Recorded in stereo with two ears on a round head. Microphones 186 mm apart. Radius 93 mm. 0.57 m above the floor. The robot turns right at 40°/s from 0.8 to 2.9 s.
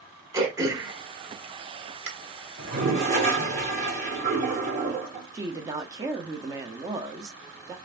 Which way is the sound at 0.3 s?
15° right (ahead or behind).